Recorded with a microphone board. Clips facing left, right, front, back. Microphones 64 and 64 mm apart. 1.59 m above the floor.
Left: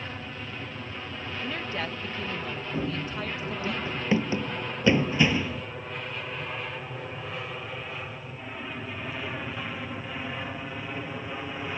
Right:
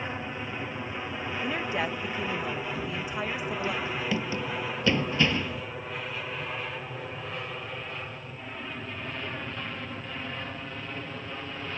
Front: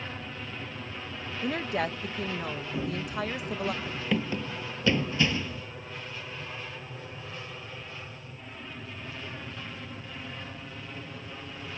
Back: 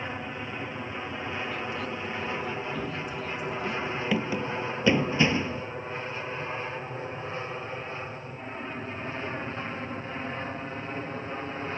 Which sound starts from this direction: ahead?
A woman speaking, at 1.4 s.